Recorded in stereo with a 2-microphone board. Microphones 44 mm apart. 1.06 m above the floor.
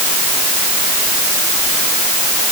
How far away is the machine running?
No machine running in this recording.